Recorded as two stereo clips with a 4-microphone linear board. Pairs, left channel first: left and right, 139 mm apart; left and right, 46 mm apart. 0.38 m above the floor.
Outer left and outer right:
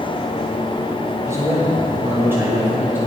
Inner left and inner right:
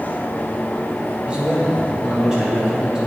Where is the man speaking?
20° right (ahead or behind), 2.5 m; by 3.0 s 15° right (ahead or behind), 4 m.